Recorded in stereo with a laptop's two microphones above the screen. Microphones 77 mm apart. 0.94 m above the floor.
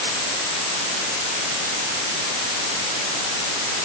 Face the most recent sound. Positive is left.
No sound to turn to.